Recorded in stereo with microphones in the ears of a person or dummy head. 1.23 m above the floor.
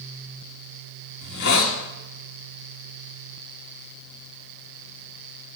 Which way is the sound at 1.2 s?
55° left (ahead or behind).